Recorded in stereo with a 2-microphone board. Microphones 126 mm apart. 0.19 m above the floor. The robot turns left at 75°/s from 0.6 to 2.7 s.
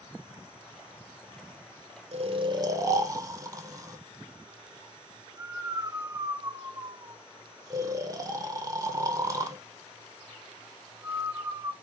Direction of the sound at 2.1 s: 55° right (ahead or behind).